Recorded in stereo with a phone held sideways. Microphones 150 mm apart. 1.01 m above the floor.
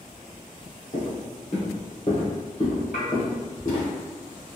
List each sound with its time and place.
0.9 s footsteps: 50° left (ahead or behind), 1.5 m; by 3.9 s 65° left (ahead or behind), 2.5 m
2.9 s dishes clattering: 85° left, 1.8 m